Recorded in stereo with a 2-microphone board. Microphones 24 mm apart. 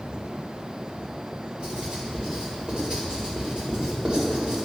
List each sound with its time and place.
1.6 s writing: 45° right (ahead or behind), 1.9 m